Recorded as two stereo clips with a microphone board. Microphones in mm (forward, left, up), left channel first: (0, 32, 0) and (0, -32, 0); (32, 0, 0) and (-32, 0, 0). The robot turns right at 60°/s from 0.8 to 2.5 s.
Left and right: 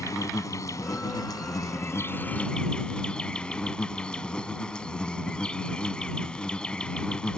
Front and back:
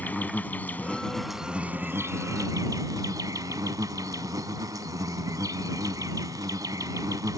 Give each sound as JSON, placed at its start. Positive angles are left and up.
{"t": 0.0, "sound": "an insect", "azimuth_deg": 65}